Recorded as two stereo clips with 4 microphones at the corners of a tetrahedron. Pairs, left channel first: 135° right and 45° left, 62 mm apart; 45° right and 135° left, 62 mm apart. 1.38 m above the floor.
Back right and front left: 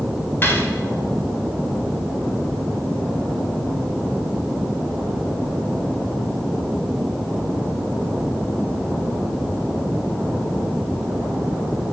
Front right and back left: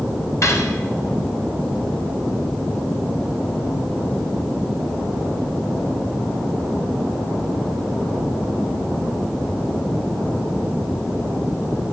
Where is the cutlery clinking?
85° right, 3.5 m.